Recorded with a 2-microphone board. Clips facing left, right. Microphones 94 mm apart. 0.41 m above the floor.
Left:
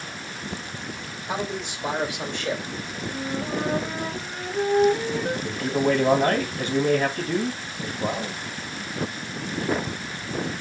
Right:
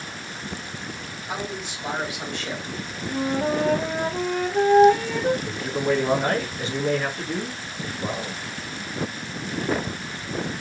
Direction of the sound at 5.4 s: 50° left (ahead or behind).